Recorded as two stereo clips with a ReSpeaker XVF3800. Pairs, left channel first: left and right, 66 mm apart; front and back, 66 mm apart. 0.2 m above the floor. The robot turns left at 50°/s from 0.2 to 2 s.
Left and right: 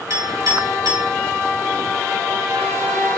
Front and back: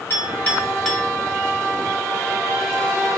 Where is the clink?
55° right, 2 m; by 1.1 s 100° right, 2 m.